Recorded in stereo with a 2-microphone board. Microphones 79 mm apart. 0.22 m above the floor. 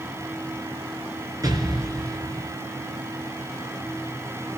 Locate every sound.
1.4 s an explosion: 50° right (ahead or behind), 2.5 m